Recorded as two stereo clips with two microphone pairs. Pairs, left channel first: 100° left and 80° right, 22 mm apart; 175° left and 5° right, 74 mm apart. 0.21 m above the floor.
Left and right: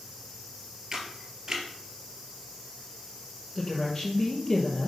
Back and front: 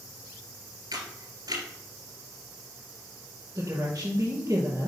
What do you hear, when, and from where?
0.9 s a camera shutter: 20° right, 2 m
3.5 s a woman speaking: 30° left, 3 m